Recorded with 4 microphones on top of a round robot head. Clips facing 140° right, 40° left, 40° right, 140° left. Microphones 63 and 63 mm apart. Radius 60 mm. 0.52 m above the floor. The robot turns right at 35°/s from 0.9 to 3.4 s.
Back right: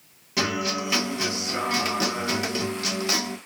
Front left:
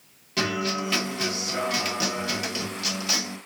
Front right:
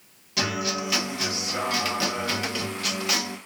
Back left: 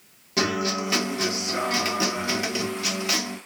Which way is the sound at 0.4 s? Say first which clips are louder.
Even, back left 3 dB; 150° left.